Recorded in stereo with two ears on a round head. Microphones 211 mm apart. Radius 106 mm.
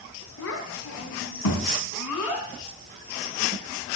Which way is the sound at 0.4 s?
60° left (ahead or behind).